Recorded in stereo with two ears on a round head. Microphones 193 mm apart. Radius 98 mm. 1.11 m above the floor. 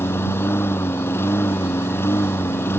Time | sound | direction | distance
0.0 | a lawn mower | 10° left (ahead or behind) | ?